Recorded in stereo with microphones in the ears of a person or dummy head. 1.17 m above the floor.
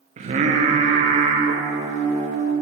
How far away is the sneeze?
I don't hear a sneeze.